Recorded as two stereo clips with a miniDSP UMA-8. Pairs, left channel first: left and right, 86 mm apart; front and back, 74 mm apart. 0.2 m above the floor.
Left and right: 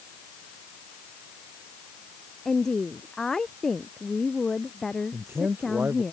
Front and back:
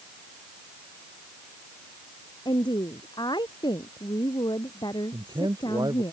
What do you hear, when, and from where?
2.5 s a woman speaking: 5° left
5.1 s a man speaking: 160° right